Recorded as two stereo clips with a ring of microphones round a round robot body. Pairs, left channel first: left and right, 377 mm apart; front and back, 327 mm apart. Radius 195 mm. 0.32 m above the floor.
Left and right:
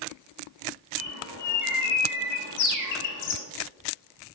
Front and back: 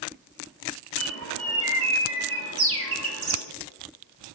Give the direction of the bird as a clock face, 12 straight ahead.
8 o'clock.